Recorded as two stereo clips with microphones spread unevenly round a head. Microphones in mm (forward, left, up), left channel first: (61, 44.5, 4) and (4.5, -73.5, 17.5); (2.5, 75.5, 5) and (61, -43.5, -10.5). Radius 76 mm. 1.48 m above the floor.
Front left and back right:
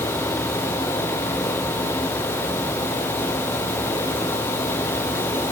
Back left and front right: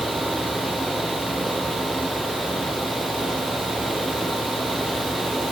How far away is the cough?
No cough in this recording.